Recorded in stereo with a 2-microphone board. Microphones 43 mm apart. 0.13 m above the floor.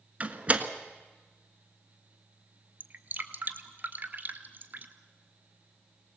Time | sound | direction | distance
0.2 | a door slam | 30° right (ahead or behind) | 1.4 m
2.8 | dripping | 45° right (ahead or behind) | 1.3 m